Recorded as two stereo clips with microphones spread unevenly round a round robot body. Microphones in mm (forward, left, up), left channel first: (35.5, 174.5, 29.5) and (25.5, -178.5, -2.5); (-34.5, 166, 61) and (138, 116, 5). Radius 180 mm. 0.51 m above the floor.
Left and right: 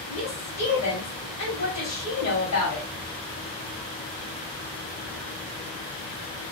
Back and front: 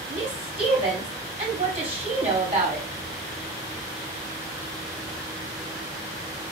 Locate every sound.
0.1 s a woman speaking: 40° left, 2.5 m